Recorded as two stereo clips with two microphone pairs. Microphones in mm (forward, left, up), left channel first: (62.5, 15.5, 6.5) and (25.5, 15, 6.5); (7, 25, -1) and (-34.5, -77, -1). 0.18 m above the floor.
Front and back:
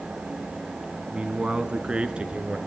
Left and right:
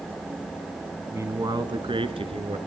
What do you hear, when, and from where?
1.1 s a man speaking: 150° right, 1.6 m; by 2.6 s 120° right, 3 m